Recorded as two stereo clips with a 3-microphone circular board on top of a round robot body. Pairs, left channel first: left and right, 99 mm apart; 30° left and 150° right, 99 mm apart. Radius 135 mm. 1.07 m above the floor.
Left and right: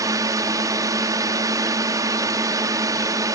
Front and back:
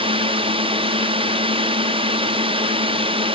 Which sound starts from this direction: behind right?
A drone, at 0.0 s.